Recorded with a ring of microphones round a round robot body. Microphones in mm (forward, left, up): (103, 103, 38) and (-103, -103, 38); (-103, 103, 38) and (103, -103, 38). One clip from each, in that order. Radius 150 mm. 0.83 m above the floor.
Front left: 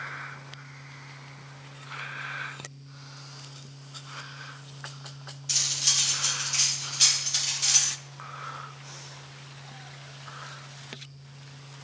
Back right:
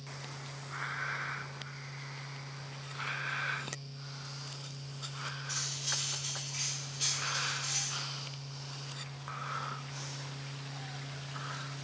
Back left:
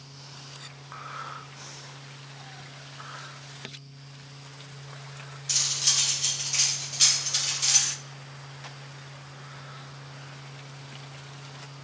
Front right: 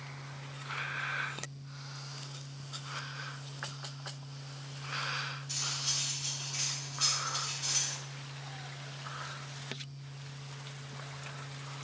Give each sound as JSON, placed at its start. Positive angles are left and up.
{"t": 5.5, "sound": "cutlery clinking", "azimuth_deg": 85, "distance_m": 0.6}